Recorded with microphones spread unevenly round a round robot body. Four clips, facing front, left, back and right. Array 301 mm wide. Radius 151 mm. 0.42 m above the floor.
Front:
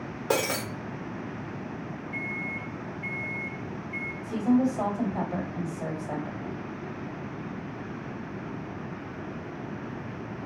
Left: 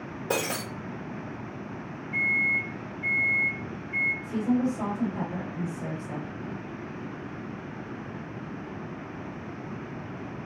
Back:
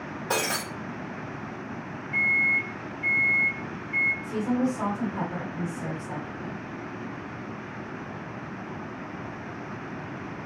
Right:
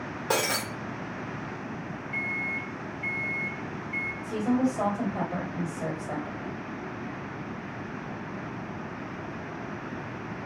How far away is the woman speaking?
About 1.7 m.